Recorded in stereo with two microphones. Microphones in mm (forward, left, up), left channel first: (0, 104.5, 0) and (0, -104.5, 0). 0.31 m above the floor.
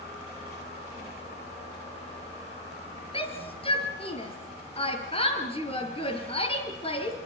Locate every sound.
3.1 s a shout: 25° left (ahead or behind), 6 m